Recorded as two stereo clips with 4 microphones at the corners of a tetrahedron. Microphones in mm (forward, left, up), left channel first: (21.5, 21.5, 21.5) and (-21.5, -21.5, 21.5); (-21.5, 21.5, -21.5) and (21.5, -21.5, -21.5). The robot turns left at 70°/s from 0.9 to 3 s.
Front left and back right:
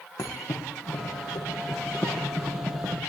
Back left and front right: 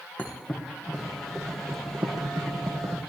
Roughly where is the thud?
Ahead left.